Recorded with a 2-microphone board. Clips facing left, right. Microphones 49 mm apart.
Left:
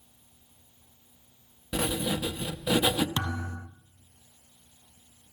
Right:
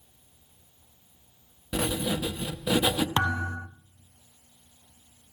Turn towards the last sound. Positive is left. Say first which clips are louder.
# right 6 dB
turn(degrees=-35)  # may be behind; listen again after turning